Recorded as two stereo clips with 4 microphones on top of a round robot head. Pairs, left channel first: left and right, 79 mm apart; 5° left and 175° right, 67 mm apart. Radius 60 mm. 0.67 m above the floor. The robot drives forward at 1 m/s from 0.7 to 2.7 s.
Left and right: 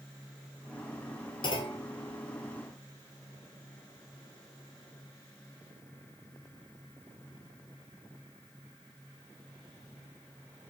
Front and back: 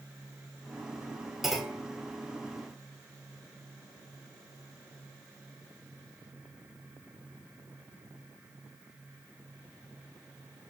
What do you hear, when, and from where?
1.4 s a clunk: 95° left, 2.5 m; by 1.9 s 110° left, 2.5 m